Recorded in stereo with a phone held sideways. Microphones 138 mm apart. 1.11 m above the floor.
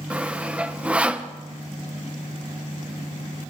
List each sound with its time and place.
0.1 s sawing: 10° right (ahead or behind), 0.6 m